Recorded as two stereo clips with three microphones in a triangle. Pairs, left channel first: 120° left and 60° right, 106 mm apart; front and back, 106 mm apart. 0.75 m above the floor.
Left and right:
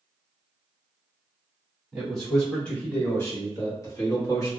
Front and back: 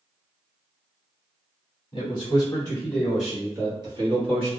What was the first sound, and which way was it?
A man speaking, 30° left.